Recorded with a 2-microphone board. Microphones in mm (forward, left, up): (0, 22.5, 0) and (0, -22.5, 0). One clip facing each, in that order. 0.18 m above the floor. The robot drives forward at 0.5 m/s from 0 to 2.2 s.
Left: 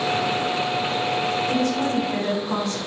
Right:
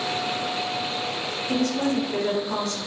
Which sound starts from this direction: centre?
A woman speaking, at 1.5 s.